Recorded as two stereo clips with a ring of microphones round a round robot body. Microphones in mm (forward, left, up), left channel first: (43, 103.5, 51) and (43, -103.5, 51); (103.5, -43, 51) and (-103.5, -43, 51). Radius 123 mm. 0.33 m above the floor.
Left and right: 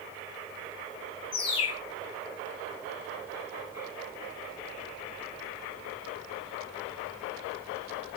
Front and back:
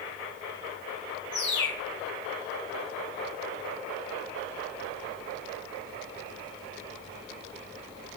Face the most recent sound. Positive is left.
turn(degrees=25)